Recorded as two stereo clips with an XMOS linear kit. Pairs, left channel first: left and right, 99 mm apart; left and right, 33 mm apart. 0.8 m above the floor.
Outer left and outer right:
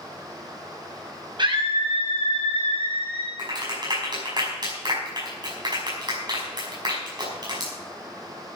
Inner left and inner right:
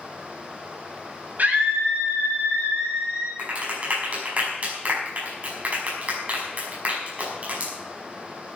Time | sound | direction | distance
1.4 | a scream | 50° right (ahead or behind) | 6.5 m
3.4 | a clap | 45° right (ahead or behind) | 5.5 m